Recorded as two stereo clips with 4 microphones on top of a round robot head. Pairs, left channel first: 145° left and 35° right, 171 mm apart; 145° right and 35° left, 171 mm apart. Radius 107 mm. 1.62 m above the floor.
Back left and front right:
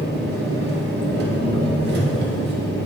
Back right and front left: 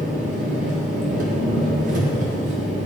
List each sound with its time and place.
0.0 s an engine running: 10° right, 1.0 m